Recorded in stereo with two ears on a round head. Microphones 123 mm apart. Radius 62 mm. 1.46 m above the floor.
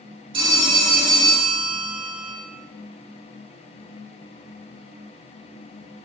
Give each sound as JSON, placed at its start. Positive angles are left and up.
{"t": 0.3, "sound": "a phone ringing", "side_deg": -40, "distance_m": 2.5}